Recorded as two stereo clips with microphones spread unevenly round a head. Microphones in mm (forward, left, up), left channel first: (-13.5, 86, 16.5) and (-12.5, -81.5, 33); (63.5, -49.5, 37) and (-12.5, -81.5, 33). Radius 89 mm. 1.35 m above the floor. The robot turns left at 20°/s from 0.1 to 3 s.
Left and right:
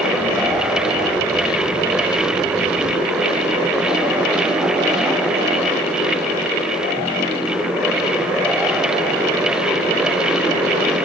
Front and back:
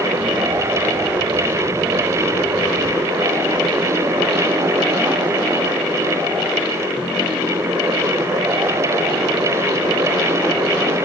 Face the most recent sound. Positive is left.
No sound to turn to.